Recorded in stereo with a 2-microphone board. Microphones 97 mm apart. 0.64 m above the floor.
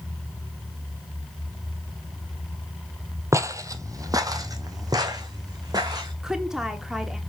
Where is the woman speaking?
5° right (ahead or behind), 1.4 m.